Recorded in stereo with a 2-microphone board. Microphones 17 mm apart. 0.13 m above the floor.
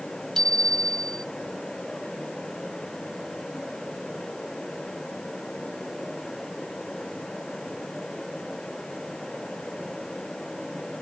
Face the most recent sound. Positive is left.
turn(degrees=35)  # may be behind; listen again after turning